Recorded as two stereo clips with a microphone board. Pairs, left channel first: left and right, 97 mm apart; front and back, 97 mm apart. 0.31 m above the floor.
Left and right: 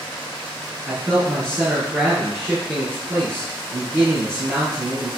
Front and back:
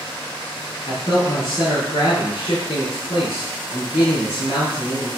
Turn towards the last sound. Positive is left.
turn(degrees=-25)